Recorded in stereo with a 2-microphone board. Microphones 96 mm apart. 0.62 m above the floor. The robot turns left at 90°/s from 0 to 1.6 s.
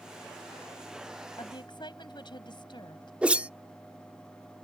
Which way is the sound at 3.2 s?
15° right (ahead or behind).